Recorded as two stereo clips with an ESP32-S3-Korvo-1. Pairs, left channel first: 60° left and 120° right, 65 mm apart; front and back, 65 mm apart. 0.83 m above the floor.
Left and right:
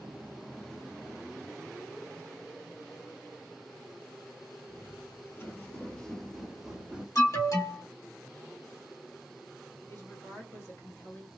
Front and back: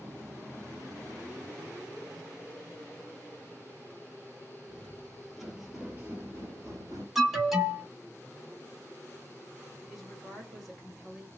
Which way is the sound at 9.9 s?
95° left.